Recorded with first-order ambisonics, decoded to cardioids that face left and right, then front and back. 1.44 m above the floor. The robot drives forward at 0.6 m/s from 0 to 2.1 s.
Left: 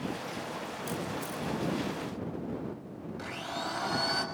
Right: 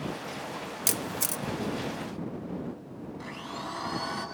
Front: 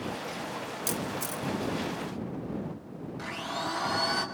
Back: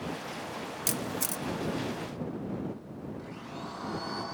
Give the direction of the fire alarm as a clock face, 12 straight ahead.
No fire alarm in this recording.